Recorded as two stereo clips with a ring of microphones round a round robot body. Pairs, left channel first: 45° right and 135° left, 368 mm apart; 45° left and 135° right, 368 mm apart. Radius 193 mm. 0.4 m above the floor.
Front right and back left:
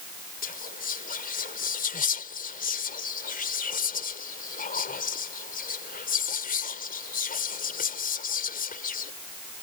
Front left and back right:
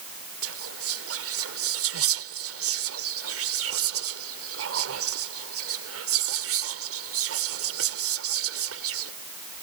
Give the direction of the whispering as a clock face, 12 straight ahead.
3 o'clock.